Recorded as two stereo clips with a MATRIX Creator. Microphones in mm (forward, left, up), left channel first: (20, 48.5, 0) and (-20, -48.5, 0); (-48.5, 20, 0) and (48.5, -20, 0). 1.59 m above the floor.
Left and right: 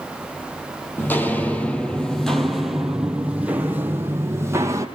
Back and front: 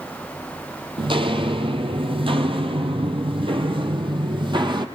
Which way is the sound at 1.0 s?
Straight ahead.